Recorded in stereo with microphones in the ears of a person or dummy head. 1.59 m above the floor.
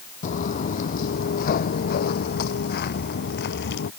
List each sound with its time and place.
0.2 s footsteps: 55° left (ahead or behind); by 3.9 s 70° left (ahead or behind)